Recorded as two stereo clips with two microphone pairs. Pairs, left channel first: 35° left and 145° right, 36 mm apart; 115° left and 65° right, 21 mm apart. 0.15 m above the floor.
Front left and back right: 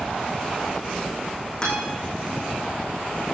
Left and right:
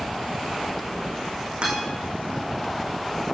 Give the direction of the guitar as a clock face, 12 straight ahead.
1 o'clock.